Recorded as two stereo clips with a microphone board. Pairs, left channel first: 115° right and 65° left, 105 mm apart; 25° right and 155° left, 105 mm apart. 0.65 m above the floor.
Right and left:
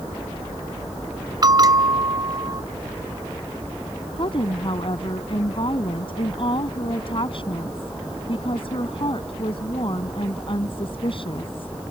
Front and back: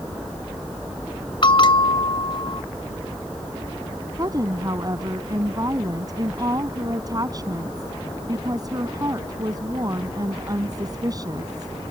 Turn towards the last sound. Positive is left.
turn(degrees=-150)